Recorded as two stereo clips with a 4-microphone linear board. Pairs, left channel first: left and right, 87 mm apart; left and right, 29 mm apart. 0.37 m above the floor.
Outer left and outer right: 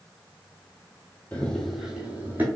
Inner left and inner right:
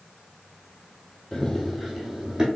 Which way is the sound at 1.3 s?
20° left (ahead or behind).